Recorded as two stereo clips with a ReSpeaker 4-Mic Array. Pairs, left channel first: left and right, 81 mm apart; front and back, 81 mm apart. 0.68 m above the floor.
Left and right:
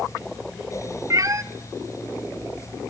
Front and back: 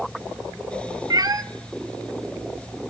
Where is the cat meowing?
140° right, 0.8 m.